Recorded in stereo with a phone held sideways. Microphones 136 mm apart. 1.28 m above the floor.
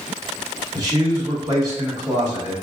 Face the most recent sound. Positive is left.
turn(degrees=-25)  # may be behind; listen again after turning